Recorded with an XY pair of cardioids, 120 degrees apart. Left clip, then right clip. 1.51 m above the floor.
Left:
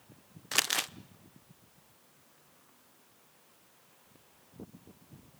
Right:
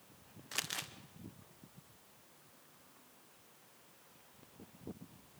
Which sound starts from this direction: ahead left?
Crumpling, at 0.5 s.